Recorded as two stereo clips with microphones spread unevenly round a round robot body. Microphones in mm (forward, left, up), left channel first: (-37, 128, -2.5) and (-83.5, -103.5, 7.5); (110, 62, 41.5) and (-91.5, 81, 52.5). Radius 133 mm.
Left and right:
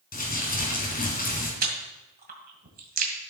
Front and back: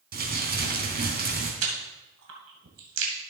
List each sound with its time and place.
0.1 s crumpling: 130° left, 3 m
1.6 s chewing: 155° right, 2 m